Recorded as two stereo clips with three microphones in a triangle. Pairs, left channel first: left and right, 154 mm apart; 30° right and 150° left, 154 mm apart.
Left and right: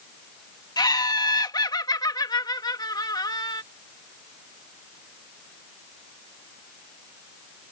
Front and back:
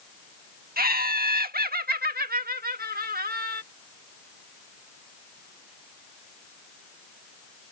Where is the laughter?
150° left.